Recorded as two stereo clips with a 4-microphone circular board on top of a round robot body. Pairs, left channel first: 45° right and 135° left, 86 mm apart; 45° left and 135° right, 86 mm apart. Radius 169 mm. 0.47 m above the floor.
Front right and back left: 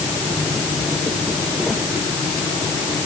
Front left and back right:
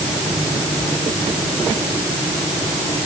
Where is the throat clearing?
I don't hear throat clearing.